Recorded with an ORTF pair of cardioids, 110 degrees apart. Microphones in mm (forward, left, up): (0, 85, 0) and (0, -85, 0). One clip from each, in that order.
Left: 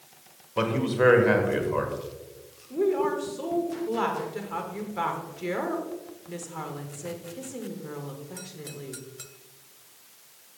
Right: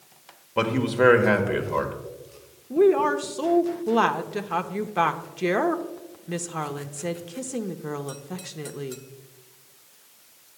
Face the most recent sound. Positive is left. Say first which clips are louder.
# right 6 dB
turn(degrees=-45)